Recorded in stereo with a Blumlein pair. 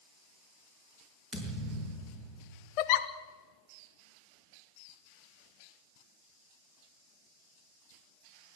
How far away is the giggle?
About 1.1 m.